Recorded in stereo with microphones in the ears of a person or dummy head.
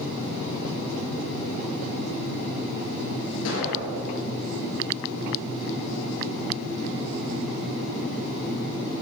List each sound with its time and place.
3.5 s an explosion: 75° left (ahead or behind), 4.5 m